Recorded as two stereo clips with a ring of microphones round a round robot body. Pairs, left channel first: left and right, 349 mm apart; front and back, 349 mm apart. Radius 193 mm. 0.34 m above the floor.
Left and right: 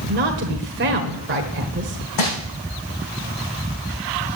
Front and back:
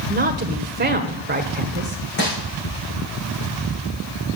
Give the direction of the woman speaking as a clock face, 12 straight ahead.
4 o'clock.